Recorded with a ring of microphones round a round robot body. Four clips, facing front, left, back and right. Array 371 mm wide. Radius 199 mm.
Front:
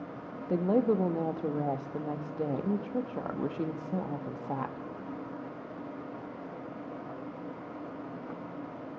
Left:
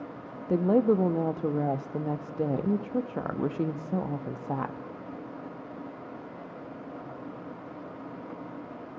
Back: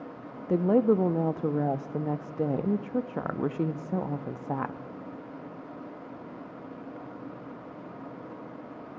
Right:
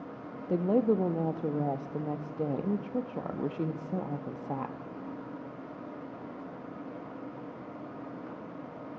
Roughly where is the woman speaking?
Behind left.